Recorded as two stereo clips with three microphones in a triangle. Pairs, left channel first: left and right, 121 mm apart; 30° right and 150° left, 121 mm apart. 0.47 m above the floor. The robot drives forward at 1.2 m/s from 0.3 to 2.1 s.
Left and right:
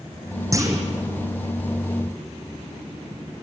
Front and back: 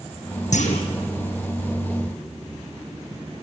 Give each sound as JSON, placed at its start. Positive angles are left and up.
{"t": 0.5, "sound": "a clunk", "azimuth_deg": -25, "distance_m": 3.5}